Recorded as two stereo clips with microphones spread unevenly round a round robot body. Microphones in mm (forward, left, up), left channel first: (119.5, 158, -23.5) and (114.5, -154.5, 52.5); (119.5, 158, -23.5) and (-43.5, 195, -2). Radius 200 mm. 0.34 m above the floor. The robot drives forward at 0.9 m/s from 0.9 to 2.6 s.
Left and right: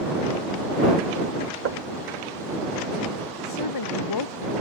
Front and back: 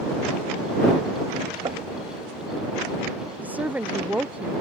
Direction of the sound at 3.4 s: 85° left.